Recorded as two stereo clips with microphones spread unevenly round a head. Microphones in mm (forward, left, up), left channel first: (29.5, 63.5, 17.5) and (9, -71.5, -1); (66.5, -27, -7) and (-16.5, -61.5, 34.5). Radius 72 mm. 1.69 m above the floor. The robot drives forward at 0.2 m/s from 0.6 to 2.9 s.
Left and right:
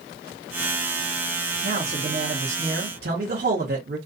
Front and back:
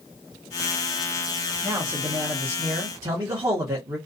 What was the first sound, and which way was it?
A man speaking, 110° right.